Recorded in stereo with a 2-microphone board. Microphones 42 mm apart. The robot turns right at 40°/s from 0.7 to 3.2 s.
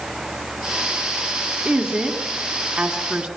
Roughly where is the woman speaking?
Right.